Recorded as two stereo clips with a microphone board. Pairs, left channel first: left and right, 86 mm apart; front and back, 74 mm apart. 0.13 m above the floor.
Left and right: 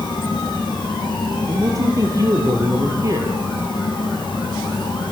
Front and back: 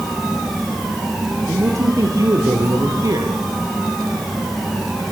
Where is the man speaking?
140° right, 4 m.